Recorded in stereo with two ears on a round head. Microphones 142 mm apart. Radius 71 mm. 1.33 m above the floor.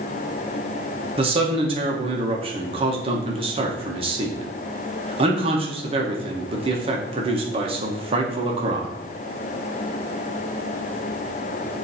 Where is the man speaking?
35° right (ahead or behind), 1.4 m.